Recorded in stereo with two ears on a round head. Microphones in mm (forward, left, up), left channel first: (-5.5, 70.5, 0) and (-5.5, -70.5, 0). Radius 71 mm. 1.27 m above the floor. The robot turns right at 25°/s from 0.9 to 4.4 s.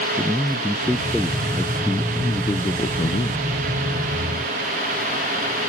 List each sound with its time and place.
0.2 s a man speaking: 10° right; by 3.4 s 55° left